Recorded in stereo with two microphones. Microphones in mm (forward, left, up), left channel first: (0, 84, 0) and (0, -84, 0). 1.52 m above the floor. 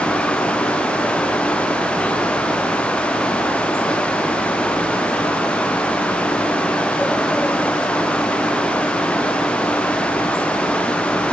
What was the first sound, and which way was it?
Only background noise.